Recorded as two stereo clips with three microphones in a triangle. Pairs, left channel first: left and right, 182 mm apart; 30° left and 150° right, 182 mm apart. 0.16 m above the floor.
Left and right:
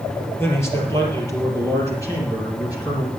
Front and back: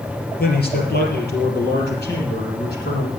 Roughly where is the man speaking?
Ahead.